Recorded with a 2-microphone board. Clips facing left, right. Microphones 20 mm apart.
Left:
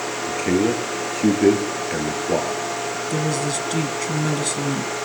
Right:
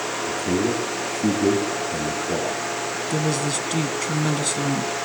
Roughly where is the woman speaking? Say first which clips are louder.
Even; centre.